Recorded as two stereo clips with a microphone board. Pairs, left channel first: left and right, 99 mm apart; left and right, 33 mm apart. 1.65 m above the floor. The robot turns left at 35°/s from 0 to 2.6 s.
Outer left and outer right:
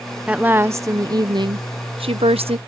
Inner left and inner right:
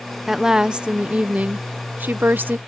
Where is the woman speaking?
10° right; by 2.6 s 90° right.